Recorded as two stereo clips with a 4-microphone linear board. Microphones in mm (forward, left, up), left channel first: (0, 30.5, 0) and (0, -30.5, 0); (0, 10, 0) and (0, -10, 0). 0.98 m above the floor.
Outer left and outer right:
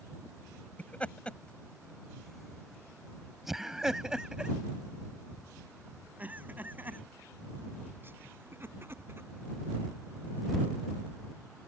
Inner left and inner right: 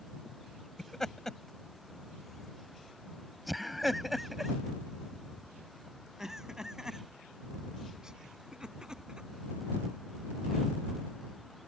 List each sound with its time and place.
0.8 s laughter: 25° left (ahead or behind); by 9.3 s 40° right (ahead or behind)